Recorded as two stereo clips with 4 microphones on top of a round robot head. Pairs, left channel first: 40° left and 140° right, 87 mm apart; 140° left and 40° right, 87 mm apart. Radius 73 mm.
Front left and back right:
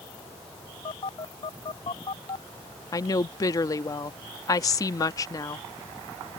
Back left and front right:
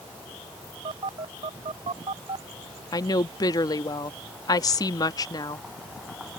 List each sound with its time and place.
0.8 s a phone buzzing: straight ahead
2.9 s a woman speaking: 90° left